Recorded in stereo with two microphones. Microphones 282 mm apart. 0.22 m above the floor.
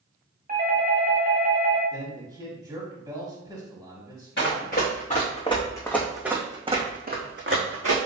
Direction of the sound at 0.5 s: 30° right (ahead or behind).